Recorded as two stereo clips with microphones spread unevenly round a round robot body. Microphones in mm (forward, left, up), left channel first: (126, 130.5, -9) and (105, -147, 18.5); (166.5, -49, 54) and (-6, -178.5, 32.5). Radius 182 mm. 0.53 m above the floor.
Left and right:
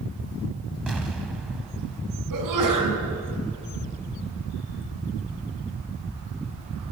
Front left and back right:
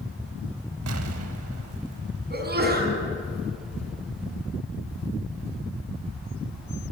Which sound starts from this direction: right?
A sneeze, at 2.3 s.